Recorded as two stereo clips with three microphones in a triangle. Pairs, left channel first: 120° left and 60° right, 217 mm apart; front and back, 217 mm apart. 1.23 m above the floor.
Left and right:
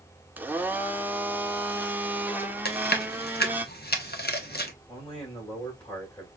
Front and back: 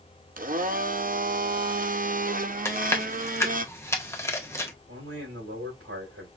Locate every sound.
0.4 s a blender: 140° right, 0.7 m
2.6 s chewing: 75° left, 1.1 m
4.9 s a man speaking: 175° right, 3.5 m